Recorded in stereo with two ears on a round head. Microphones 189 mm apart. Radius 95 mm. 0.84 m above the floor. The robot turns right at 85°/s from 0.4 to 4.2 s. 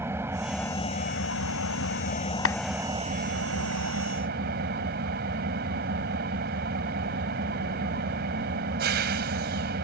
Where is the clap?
75° left (ahead or behind); by 2.6 s 65° left (ahead or behind).